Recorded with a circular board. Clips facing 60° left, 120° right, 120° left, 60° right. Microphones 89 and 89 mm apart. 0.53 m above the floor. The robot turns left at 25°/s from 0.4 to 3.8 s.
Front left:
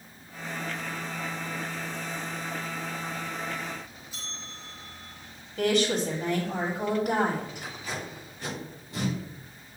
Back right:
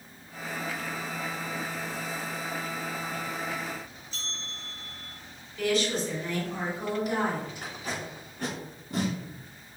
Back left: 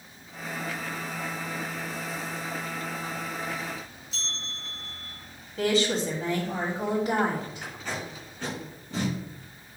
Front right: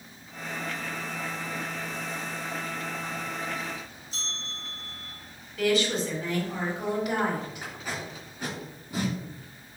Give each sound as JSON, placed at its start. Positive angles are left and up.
{"t": 4.1, "sound": "a bell", "azimuth_deg": -15, "distance_m": 3.0}
{"t": 5.6, "sound": "a woman speaking", "azimuth_deg": 65, "distance_m": 2.5}
{"t": 7.6, "sound": "tape being pulled", "azimuth_deg": -140, "distance_m": 3.5}